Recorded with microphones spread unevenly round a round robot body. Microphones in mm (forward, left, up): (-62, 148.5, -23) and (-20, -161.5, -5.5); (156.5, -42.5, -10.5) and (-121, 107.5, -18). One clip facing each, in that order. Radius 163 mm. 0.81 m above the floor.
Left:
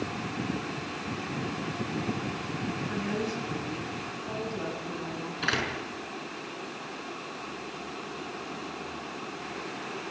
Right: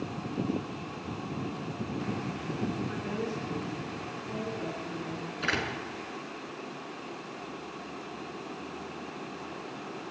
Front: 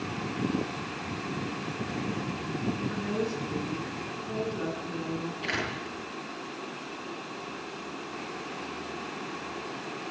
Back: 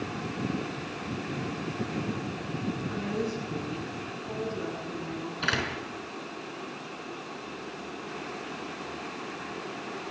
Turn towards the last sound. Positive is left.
turn(degrees=175)